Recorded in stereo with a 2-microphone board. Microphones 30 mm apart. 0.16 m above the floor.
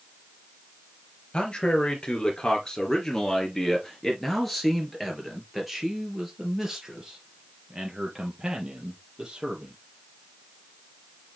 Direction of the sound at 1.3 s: 30° left (ahead or behind).